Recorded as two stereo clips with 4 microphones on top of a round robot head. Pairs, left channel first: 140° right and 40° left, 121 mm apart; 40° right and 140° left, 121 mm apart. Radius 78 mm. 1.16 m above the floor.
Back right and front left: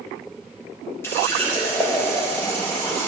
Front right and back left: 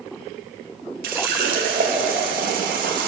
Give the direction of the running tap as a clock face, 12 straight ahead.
7 o'clock.